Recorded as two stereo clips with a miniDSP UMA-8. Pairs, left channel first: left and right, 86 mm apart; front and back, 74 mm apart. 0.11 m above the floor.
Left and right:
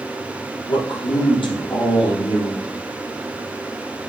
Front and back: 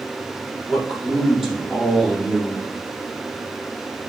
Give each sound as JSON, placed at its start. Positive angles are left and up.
{"t": 0.7, "sound": "a man speaking", "azimuth_deg": 90, "distance_m": 3.0}